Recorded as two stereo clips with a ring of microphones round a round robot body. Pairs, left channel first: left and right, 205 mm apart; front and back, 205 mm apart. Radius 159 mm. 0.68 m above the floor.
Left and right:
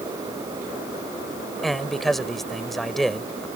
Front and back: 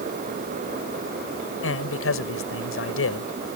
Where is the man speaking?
Straight ahead.